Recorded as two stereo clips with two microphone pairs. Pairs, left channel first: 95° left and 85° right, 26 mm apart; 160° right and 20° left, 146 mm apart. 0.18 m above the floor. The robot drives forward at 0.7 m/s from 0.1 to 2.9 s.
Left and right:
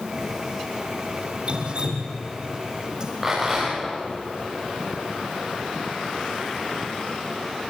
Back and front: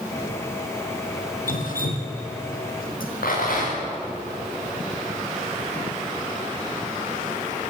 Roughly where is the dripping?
Behind right.